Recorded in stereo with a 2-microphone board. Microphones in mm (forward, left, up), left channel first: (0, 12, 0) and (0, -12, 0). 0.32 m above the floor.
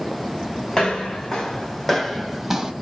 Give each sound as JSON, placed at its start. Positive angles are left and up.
{"t": 0.7, "sound": "footsteps", "side_deg": 30, "distance_m": 1.4}